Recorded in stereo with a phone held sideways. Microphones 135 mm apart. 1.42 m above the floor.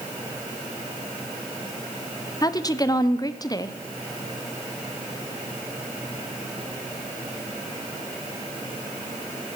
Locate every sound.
2.4 s a woman speaking: 30° left (ahead or behind), 0.6 m